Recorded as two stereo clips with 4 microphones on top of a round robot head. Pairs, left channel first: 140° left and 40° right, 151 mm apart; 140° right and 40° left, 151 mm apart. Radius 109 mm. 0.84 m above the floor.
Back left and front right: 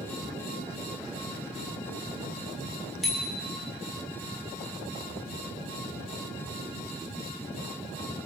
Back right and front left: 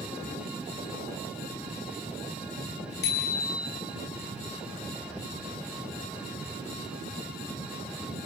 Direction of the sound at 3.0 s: 130° right.